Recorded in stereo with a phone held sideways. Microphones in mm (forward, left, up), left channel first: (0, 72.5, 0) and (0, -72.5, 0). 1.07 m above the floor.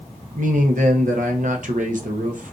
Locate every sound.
0.3 s a man speaking: 65° right (ahead or behind), 0.8 m